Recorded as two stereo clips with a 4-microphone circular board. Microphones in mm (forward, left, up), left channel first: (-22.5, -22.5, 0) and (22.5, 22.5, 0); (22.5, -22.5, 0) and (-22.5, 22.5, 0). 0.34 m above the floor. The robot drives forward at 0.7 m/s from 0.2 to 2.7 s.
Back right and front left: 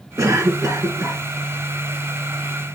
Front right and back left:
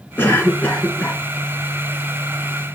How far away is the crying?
I don't hear crying.